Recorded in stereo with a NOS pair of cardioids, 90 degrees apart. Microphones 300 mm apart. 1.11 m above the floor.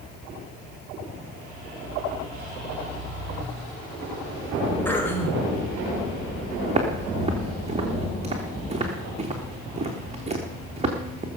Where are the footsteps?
20° right, 4 m.